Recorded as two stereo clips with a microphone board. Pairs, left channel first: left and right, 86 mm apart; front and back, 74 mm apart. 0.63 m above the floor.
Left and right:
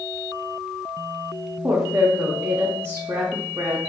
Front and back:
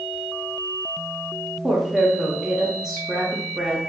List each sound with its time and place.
1.6 s a woman speaking: 100° right, 0.6 m